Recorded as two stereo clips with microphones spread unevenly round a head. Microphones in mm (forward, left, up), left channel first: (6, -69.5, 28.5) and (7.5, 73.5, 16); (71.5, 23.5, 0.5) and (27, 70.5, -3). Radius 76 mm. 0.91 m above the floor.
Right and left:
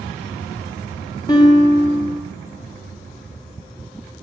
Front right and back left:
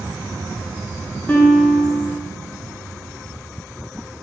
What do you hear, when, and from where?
1.3 s a guitar: 95° right, 0.7 m